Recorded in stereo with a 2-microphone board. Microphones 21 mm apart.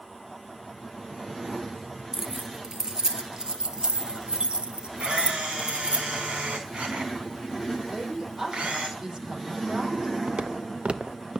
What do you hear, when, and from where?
2.1 s keys jangling: 20° right (ahead or behind), 1.8 m; by 6.0 s 65° right (ahead or behind), 3 m
5.0 s a camera shutter: 65° right (ahead or behind), 5.5 m
7.9 s a woman speaking: 20° right (ahead or behind), 6 m
10.3 s footsteps: 85° right, 1.2 m; by 11.4 s 45° right (ahead or behind), 0.9 m